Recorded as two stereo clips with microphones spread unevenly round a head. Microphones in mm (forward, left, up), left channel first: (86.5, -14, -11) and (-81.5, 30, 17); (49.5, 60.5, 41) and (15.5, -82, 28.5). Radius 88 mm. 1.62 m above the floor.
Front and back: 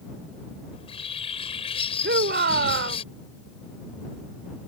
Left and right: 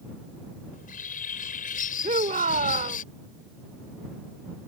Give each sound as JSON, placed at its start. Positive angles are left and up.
{"t": 0.7, "sound": "a bird", "azimuth_deg": 45}
{"t": 2.0, "sound": "a shout", "azimuth_deg": -160}